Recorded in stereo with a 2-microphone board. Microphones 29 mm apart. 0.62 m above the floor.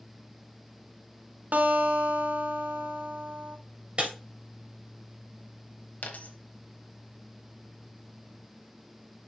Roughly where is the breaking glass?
Right.